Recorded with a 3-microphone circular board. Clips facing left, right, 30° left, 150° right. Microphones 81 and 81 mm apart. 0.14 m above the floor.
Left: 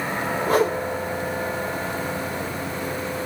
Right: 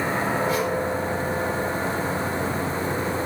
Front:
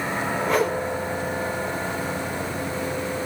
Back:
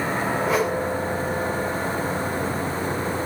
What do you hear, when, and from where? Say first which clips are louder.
0.5 s a whoosh: left 4 dB, front 1 dB; 125° left, 4 m